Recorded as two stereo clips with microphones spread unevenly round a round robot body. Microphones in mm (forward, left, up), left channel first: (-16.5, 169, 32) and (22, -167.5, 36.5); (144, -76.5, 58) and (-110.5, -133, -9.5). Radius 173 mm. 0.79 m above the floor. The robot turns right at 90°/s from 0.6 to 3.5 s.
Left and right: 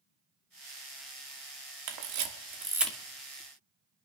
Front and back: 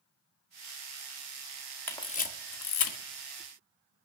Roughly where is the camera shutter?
Right.